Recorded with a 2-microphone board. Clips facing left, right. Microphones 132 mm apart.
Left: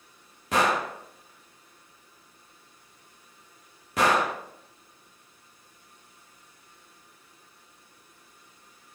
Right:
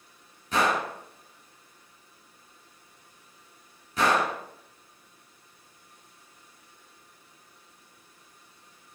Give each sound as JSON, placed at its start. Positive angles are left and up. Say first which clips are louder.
{"t": 0.5, "sound": "a gunshot", "louder": "left 1 dB", "side_deg": 85, "distance_m": 1.2}